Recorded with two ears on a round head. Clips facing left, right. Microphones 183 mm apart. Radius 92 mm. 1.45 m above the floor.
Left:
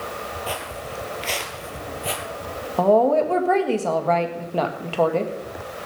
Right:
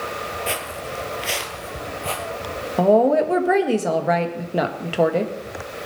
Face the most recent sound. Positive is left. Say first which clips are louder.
# right 1 dB
turn(degrees=-15)  # may be behind; listen again after turning